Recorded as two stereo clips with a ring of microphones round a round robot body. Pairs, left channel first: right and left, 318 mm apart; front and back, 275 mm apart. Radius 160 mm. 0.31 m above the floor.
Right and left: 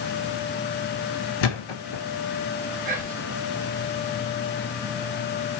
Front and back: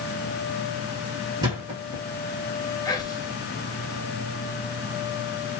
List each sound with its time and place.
1.4 s a thud: 100° right, 1.5 m
2.9 s whispering: 60° left, 1.2 m